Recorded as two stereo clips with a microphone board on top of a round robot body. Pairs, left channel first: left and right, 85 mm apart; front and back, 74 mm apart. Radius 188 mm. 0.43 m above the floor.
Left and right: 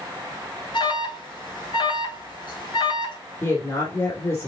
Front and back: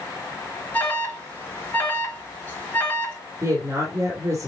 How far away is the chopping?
No chopping in this recording.